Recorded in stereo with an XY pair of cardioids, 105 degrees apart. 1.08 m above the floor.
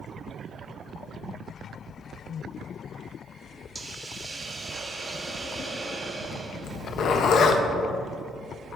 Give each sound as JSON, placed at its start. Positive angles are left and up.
{"t": 3.8, "sound": "a hiss", "azimuth_deg": -25, "distance_m": 1.0}
{"t": 6.6, "sound": "a zipper", "azimuth_deg": 60, "distance_m": 0.7}